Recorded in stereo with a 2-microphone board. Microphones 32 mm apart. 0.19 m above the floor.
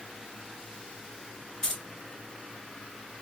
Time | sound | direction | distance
1.6 | keys jangling | 15° left (ahead or behind) | 2.0 m